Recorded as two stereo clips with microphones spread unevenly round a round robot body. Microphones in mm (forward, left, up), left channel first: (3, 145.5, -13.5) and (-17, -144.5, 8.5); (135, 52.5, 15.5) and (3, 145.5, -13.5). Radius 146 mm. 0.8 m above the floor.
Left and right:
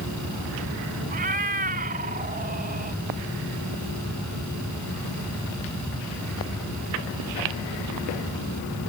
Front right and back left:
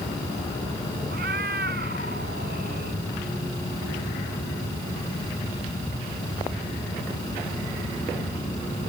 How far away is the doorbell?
No doorbell in this recording.